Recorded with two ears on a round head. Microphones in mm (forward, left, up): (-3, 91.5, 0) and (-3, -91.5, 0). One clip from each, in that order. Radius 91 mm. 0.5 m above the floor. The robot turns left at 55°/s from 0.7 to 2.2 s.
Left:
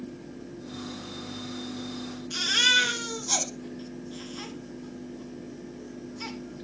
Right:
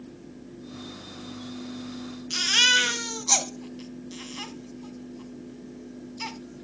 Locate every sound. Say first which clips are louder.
2.3 s a baby crying: right 2 dB; 50° right (ahead or behind), 2 m